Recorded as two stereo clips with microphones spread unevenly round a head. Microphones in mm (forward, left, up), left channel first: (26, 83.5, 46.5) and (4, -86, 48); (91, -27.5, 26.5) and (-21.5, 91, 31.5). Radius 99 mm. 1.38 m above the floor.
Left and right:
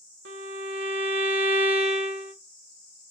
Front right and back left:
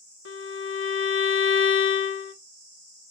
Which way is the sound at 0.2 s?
75° right.